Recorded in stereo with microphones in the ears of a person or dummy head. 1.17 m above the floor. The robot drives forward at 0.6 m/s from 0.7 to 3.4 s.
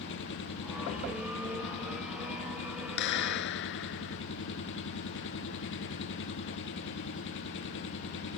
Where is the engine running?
65° left (ahead or behind); by 8.4 s 70° left (ahead or behind).